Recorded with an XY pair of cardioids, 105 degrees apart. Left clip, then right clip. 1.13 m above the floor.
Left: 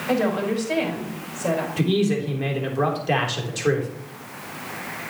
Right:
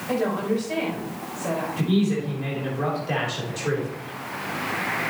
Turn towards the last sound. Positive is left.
turn(degrees=45)